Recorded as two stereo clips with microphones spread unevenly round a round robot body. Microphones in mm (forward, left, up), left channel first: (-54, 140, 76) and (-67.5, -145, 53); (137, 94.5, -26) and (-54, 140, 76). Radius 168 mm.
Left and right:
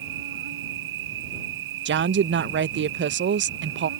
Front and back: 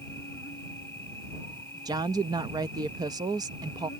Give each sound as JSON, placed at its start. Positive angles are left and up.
{"t": 0.0, "sound": "an insect", "azimuth_deg": -75}
{"t": 1.9, "sound": "a woman speaking", "azimuth_deg": -95}